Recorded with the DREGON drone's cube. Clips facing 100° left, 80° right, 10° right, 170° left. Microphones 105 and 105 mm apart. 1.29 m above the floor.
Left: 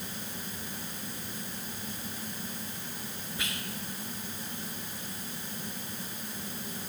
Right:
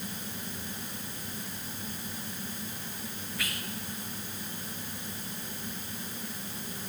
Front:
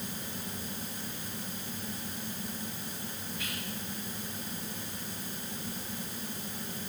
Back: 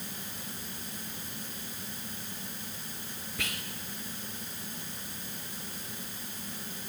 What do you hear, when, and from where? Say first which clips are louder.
3.4 s whispering: even, back 3 dB; 165° left, 0.7 m